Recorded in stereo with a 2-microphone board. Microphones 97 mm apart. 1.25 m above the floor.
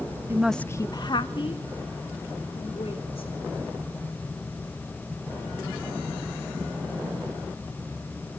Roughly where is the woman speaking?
Right.